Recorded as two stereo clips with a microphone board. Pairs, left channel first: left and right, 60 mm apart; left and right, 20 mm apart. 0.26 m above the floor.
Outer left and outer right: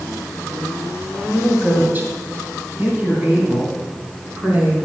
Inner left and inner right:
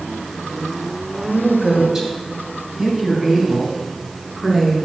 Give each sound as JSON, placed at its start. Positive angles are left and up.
{"t": 1.3, "sound": "a woman speaking", "side_deg": -30, "distance_m": 1.4}